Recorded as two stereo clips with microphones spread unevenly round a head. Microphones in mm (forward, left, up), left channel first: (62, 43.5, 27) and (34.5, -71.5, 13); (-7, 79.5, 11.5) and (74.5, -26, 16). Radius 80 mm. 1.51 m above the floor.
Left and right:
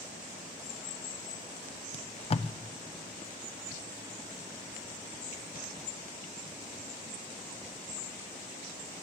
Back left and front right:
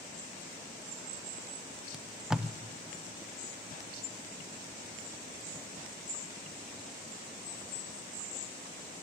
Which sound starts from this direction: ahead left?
Tape being pulled, at 1.9 s.